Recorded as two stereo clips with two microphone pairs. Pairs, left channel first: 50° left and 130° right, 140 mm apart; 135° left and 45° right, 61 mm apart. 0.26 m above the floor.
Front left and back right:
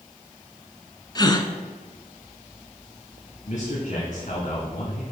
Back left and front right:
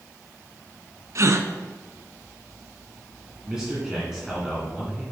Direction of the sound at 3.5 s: 35° left.